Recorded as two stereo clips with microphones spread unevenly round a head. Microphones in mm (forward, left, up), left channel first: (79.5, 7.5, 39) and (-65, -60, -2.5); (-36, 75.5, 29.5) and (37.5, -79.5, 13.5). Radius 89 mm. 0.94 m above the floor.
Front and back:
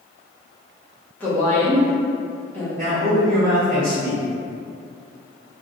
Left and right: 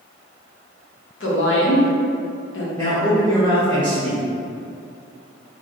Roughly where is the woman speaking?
Left.